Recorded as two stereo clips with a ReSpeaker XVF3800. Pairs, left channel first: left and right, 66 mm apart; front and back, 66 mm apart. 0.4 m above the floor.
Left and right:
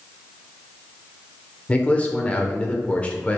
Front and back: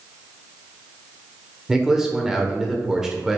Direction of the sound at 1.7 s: 110° left.